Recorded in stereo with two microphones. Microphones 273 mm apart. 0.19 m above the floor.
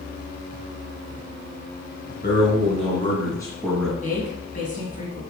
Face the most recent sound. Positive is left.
turn(degrees=30)  # may be behind; listen again after turning